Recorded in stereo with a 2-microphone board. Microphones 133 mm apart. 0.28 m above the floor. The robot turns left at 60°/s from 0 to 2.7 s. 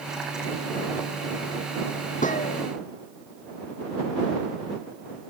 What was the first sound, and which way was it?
A gunshot, 80° left.